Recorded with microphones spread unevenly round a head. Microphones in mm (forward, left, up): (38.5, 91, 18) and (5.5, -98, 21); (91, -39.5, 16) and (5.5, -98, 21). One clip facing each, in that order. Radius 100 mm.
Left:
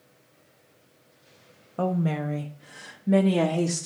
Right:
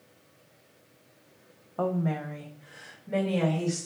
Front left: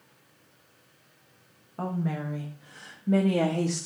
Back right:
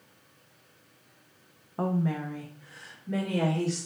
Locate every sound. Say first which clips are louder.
1.8 s a woman speaking: left 2 dB, back right 2 dB; 140° left, 0.6 m; by 3.9 s 70° left, 1.2 m